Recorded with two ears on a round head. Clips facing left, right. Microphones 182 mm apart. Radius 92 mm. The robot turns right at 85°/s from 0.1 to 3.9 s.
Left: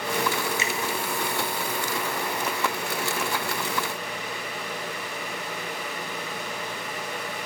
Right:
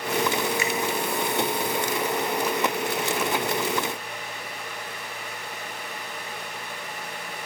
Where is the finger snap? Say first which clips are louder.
Right 3 dB; 20° left (ahead or behind), 0.9 m; by 0.7 s 30° left (ahead or behind), 0.9 m.